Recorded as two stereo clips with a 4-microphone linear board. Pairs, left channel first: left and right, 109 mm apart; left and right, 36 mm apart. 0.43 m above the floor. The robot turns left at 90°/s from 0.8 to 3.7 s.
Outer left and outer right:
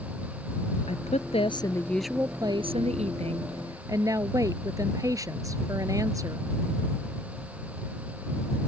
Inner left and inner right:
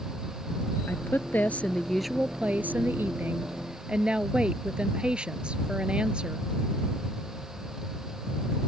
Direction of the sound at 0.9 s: 105° left.